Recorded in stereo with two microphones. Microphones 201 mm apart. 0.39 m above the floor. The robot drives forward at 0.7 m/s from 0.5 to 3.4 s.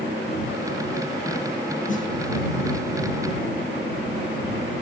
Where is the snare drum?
40° left (ahead or behind), 3.5 m; by 2.1 s 35° left (ahead or behind), 3.5 m.